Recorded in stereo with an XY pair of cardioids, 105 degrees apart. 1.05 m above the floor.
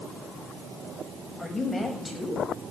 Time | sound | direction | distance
1.4 | a woman speaking | 10° left | 6.5 m